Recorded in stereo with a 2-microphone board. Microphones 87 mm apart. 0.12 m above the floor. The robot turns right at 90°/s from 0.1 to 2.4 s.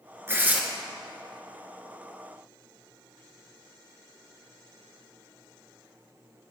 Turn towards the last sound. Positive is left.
turn(degrees=140)